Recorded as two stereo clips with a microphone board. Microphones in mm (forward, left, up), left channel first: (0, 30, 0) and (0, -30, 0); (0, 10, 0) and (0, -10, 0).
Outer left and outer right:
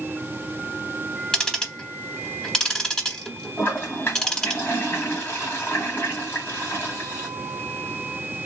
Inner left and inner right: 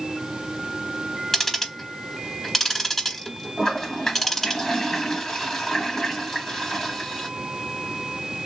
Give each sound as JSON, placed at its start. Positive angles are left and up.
{"t": 1.3, "sound": "ticking", "side_deg": 10, "distance_m": 0.8}
{"t": 3.6, "sound": "a toilet flushing", "side_deg": 40, "distance_m": 1.4}